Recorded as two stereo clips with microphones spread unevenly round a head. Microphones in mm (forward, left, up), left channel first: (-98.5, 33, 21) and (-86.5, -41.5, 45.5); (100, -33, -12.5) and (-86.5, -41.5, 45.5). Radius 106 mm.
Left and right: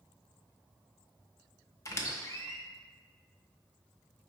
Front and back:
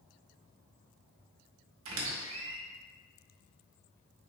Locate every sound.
1.9 s a squeak: 155° left, 0.8 m